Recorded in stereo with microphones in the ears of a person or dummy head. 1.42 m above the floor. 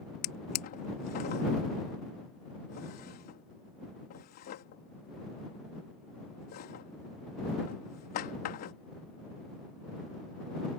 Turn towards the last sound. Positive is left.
turn(degrees=45)  # may be behind; listen again after turning